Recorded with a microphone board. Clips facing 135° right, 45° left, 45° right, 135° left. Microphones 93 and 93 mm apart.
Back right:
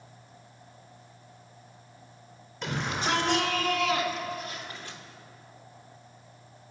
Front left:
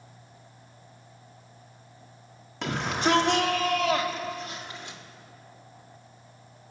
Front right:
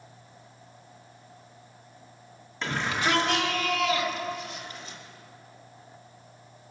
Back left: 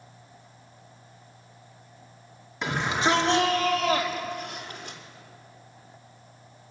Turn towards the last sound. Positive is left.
turn(degrees=115)